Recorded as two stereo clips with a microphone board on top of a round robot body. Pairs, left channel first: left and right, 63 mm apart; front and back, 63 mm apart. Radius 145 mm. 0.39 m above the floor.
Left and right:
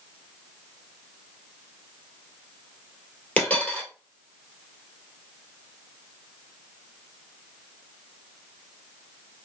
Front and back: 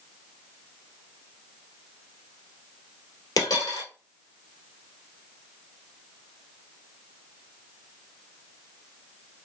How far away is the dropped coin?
About 1.5 m.